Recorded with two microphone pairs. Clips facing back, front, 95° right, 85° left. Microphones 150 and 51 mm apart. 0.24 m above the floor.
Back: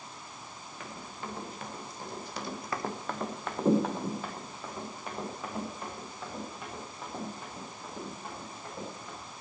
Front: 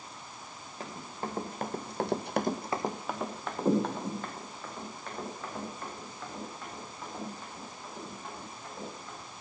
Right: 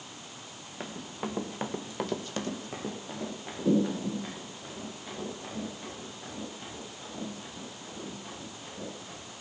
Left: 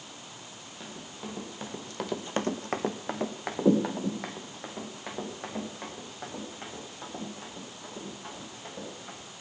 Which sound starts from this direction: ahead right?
Running footsteps, at 0.8 s.